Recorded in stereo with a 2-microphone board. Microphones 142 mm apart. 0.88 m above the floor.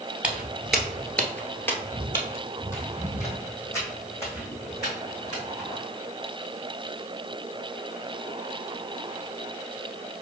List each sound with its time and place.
0.2 s footsteps: 5° right (ahead or behind), 1.0 m; by 5.7 s 20° left (ahead or behind), 4 m